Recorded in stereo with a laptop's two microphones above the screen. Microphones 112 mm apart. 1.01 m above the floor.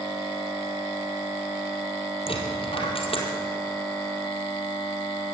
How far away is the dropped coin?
About 3 m.